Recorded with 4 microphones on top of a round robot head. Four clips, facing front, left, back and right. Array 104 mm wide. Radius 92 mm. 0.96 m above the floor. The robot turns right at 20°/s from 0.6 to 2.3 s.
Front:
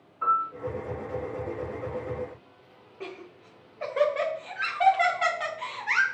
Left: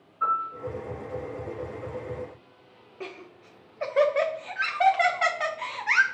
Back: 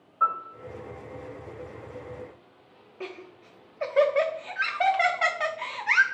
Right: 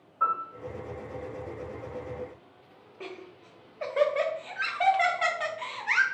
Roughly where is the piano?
Behind right.